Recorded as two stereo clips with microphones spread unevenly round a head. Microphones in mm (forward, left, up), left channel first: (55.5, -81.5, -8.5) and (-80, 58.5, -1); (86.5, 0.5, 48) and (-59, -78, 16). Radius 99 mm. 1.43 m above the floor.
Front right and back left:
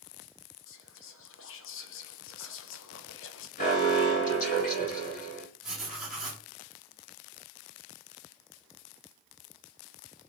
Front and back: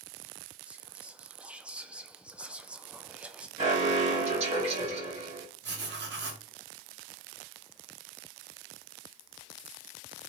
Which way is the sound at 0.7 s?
65° right.